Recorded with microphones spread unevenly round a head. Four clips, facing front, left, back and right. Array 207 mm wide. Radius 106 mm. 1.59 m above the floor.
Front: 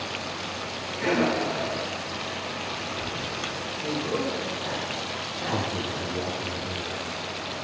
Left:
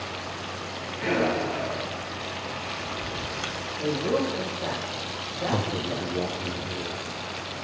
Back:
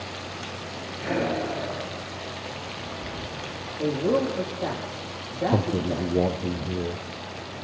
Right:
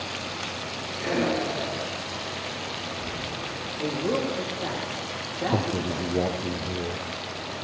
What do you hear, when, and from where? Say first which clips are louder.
1.0 s breathing: left 1 dB, front 2 dB; 10° left, 7.5 m
3.8 s a man speaking: left 1 dB, back 6 dB; 165° right, 4 m
5.5 s a man speaking: right 2 dB, back 4 dB; 160° right, 0.6 m